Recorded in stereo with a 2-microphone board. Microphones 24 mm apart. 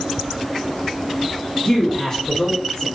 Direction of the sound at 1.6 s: 30° left (ahead or behind).